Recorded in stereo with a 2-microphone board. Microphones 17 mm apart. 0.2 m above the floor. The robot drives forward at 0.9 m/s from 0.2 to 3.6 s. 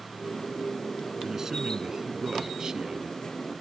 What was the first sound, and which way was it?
A man speaking, 25° right (ahead or behind).